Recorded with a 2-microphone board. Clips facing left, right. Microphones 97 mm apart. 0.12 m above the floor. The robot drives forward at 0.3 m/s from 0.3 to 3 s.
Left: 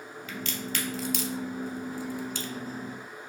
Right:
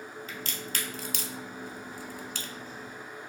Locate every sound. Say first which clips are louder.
0.3 s a crack: left 7 dB; 40° right (ahead or behind), 0.8 m; by 2.5 s 60° right (ahead or behind), 0.6 m